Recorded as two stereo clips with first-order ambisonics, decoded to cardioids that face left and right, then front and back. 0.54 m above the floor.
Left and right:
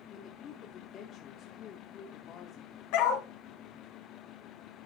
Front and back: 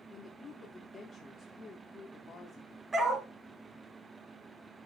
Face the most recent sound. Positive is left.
turn(degrees=105)